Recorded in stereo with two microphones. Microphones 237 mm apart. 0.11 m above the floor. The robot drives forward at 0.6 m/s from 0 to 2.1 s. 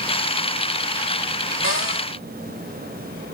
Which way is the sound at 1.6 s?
60° left (ahead or behind).